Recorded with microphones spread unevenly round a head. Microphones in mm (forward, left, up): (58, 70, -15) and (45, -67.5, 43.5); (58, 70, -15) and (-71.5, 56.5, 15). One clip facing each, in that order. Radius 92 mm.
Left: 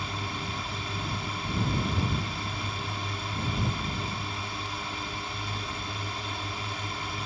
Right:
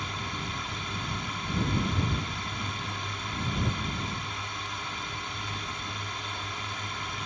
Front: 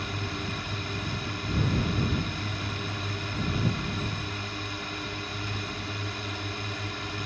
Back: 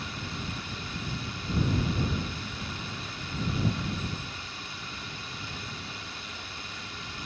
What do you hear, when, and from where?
0.0 s a drone: 15° left